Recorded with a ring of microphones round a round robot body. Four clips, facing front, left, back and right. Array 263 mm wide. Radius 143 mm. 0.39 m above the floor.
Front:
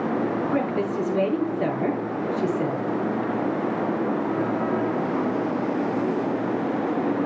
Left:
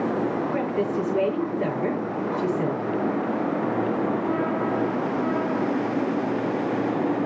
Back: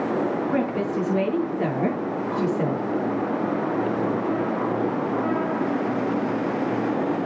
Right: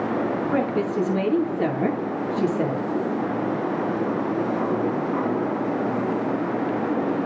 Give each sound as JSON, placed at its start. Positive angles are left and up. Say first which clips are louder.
{"t": 0.5, "sound": "a woman speaking", "louder": "right 2 dB, even", "azimuth_deg": -115, "distance_m": 7.5}